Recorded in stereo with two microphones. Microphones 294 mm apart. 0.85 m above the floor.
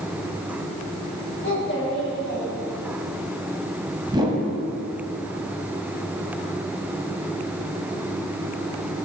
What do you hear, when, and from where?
1.4 s a child speaking: 40° left (ahead or behind), 2.5 m; by 3.1 s 60° left (ahead or behind), 3.5 m
4.1 s a whoosh: 15° right (ahead or behind), 1.2 m